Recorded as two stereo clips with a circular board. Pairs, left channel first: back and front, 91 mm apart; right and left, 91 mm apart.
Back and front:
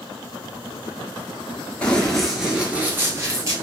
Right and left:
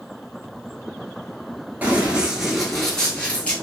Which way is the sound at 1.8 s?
125° left.